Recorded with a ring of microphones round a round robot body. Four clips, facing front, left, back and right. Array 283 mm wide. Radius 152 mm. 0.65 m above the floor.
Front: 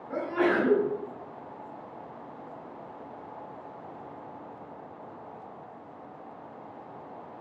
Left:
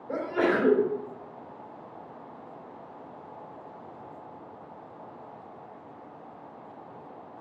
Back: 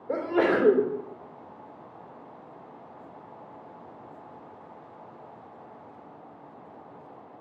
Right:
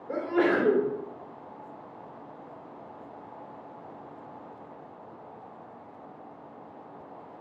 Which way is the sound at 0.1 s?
170° right.